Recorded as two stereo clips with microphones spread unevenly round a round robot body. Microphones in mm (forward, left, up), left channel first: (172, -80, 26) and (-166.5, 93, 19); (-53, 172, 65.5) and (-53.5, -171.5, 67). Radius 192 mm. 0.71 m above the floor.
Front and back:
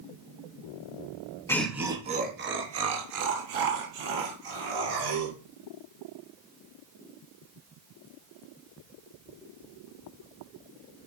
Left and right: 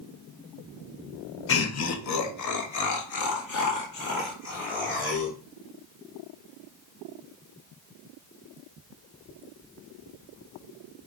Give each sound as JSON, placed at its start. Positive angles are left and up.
{"t": 1.5, "sound": "laughter", "azimuth_deg": 55, "distance_m": 0.9}